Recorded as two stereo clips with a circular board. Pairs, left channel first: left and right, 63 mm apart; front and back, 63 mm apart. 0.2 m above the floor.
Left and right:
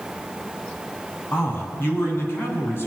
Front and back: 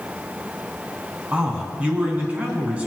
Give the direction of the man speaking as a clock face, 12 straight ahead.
8 o'clock.